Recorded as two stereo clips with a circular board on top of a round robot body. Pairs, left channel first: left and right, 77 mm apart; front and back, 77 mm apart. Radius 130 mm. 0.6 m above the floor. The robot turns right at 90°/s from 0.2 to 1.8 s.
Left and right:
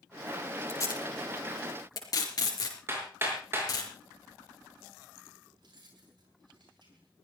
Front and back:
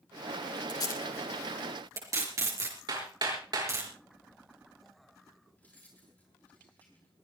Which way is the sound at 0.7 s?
30° left.